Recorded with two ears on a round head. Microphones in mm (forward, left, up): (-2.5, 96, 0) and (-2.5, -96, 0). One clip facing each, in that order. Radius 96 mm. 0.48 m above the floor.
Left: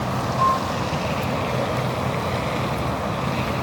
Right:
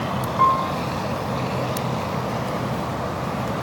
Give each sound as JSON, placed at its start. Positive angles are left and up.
{"t": 0.4, "sound": "a piano", "side_deg": -65, "distance_m": 1.2}